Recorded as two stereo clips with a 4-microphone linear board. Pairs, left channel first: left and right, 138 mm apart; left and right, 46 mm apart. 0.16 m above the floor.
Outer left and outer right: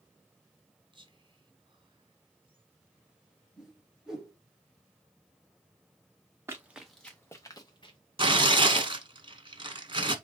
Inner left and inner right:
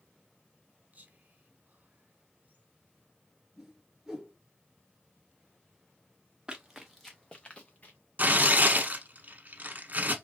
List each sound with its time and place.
0.9 s whispering: 35° right (ahead or behind), 1.4 m
3.6 s a whoosh: 5° right (ahead or behind), 1.4 m
6.5 s running footsteps: 20° right (ahead or behind), 0.9 m; by 8.0 s 40° left (ahead or behind), 1.2 m
8.2 s tearing paper: 35° right (ahead or behind), 0.9 m